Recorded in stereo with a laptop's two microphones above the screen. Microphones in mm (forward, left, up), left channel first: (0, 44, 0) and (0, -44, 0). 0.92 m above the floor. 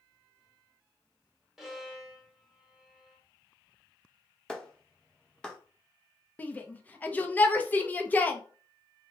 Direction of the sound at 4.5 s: 10° left (ahead or behind).